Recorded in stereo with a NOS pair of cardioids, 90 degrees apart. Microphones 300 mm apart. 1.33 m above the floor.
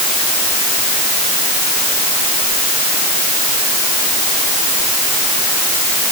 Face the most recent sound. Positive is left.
No sound to turn to.